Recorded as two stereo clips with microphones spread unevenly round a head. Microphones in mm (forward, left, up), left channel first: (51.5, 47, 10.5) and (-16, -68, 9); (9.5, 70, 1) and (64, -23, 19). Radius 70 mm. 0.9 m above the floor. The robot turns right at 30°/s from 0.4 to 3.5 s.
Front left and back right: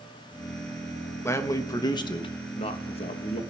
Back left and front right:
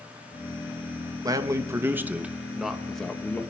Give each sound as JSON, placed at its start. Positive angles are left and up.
{"t": 1.2, "sound": "a man speaking", "azimuth_deg": -5, "distance_m": 1.0}